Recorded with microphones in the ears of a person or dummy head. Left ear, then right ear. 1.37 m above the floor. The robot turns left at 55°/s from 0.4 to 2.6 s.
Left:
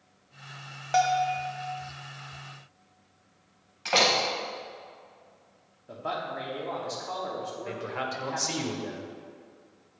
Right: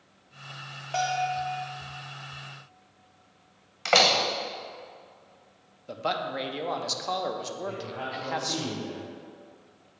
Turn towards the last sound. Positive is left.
turn(degrees=70)  # may be behind; listen again after turning